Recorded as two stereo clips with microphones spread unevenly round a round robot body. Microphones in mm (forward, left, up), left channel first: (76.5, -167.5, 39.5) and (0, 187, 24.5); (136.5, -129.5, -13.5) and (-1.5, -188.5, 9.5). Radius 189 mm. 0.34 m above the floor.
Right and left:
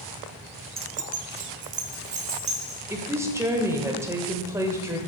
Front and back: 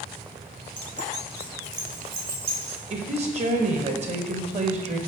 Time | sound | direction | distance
0.8 | keys jangling | 65° left | 0.7 m
2.9 | a woman speaking | straight behind | 1.0 m